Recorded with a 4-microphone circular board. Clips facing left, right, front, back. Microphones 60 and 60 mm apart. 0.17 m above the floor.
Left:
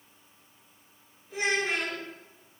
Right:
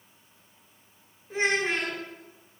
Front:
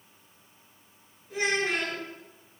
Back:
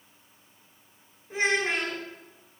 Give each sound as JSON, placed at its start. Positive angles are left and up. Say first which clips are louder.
{"t": 1.3, "sound": "a child speaking", "louder": "right 2 dB, back 2 dB", "azimuth_deg": -130, "distance_m": 1.1}